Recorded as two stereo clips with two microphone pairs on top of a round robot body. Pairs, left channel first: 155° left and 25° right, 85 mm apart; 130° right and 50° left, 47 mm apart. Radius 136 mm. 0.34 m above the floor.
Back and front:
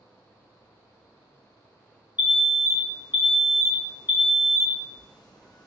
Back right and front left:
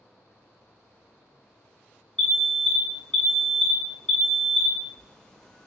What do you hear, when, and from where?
2.2 s an alarm: 160° left, 0.9 m